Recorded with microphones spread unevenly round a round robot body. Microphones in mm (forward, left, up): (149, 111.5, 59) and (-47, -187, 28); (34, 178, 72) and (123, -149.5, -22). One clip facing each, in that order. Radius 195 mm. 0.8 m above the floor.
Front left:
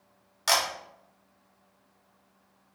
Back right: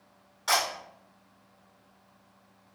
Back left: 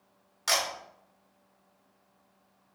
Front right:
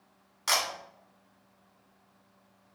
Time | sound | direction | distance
0.5 | a camera shutter | 25° left | 1.1 m